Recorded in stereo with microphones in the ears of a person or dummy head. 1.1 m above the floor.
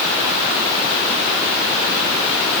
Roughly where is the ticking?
No ticking in this recording.